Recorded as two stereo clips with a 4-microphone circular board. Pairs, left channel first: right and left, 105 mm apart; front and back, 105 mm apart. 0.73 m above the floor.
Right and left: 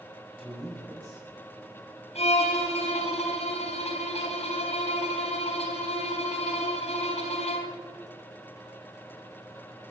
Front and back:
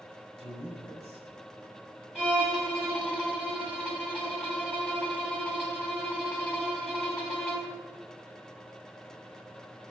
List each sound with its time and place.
0.4 s a man speaking: 175° right, 5 m
2.1 s a violin: 95° right, 3 m